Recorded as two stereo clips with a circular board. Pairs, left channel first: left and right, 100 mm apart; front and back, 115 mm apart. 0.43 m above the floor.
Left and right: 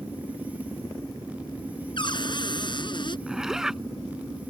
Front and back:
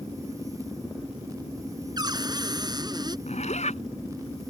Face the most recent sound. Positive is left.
turn(degrees=-5)